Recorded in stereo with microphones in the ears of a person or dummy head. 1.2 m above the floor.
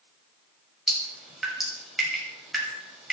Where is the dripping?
5° left (ahead or behind), 7 m.